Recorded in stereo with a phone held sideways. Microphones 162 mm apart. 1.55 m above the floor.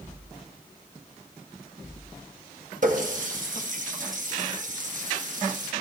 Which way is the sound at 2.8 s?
55° right (ahead or behind).